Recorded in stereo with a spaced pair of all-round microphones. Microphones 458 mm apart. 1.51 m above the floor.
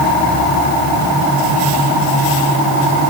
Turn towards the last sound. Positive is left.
No sound to turn to.